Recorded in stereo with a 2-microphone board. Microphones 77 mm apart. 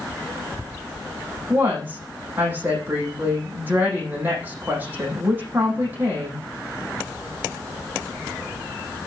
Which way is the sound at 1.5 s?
25° right (ahead or behind).